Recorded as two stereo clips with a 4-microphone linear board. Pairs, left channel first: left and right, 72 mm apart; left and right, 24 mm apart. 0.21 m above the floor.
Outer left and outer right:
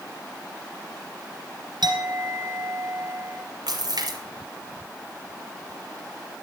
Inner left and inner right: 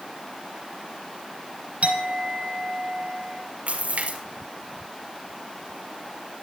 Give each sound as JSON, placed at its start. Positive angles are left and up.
{"t": 1.8, "sound": "a clink", "side_deg": -70, "distance_m": 3.0}
{"t": 3.7, "sound": "a splash", "side_deg": -70, "distance_m": 2.5}